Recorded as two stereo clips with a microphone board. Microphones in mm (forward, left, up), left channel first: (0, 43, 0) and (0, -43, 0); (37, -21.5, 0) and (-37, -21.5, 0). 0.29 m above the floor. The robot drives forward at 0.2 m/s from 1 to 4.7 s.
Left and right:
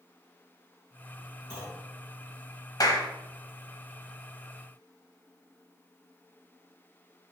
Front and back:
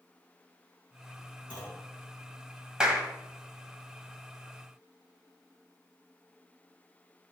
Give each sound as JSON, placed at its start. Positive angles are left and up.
{"t": 1.5, "sound": "a clunk", "azimuth_deg": 60, "distance_m": 3.5}
{"t": 2.8, "sound": "a clap", "azimuth_deg": 105, "distance_m": 1.2}